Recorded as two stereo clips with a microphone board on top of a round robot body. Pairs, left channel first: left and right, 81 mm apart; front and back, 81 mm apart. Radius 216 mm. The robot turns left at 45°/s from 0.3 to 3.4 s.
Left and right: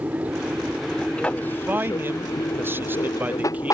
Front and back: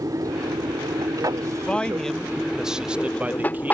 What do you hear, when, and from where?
0.0 s an aircraft: 155° right; by 3.7 s 65° left
1.6 s a man speaking: 60° right; by 3.7 s 135° right